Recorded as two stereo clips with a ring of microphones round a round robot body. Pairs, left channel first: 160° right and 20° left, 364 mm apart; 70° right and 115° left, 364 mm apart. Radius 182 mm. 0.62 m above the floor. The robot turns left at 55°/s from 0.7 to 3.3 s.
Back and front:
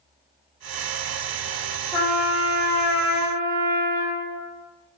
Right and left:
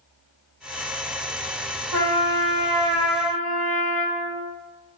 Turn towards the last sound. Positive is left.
turn(degrees=50)